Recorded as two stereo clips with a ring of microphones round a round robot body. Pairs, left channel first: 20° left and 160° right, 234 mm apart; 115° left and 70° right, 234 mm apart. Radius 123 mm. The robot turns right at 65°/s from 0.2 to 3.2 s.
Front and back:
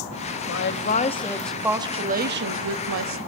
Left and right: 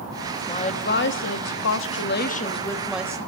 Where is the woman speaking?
45° left, 1.3 m; by 3.2 s 140° right, 1.3 m.